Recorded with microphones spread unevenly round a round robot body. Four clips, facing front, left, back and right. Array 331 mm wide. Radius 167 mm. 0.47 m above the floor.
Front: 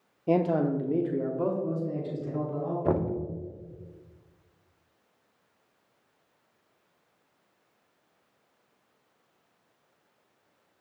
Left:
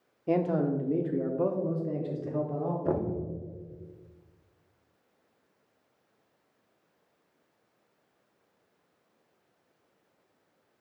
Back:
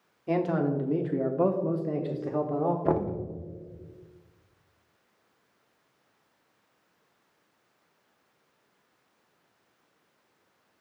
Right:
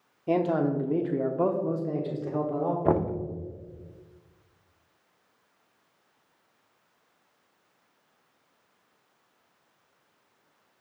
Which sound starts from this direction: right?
Knocking, at 2.9 s.